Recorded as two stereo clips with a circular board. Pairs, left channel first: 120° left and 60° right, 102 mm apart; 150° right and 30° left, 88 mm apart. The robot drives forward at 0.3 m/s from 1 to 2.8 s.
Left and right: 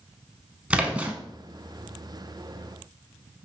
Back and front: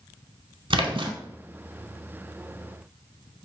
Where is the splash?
15° left, 0.7 m; by 1.1 s 20° left, 0.6 m.